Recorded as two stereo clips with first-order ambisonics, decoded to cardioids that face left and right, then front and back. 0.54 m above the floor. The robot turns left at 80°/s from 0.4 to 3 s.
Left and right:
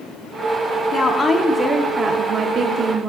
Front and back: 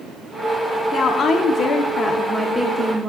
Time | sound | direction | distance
0.9 | a woman speaking | 50° left | 0.7 m